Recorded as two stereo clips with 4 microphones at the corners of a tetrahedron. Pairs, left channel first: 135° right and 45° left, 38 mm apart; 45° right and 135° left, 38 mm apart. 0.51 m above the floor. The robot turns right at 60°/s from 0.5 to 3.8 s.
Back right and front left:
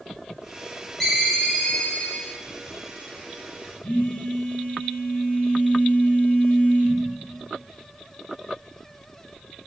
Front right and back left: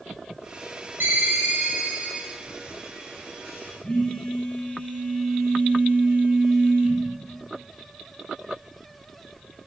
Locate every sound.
1.0 s a ringtone: 130° left, 1.0 m; by 2.3 s 150° right, 1.0 m
3.8 s a phone buzzing: 110° right, 1.2 m